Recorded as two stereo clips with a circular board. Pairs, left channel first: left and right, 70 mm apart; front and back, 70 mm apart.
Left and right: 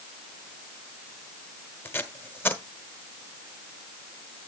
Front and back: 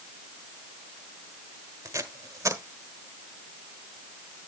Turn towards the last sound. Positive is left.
turn(degrees=145)